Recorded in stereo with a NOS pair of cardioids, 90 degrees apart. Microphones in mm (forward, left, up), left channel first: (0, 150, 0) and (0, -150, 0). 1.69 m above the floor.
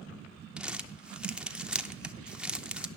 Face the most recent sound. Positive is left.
turn(degrees=-5)